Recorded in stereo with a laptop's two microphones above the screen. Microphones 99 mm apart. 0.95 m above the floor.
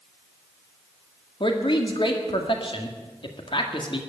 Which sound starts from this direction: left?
A man speaking, at 1.4 s.